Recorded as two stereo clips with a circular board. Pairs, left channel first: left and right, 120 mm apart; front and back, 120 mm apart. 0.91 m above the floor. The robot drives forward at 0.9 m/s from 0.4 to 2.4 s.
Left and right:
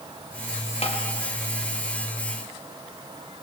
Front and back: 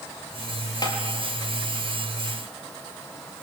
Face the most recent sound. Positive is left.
turn(degrees=80)